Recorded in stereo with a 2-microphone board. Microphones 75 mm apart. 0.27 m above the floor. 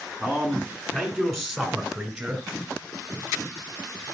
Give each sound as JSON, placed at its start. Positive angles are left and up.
{"t": 0.2, "sound": "a man speaking", "side_deg": 5, "distance_m": 3.0}